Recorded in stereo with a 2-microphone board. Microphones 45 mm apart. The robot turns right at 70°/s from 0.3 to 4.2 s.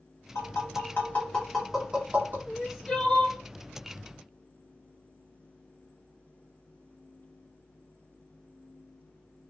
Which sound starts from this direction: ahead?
Crying, at 2.5 s.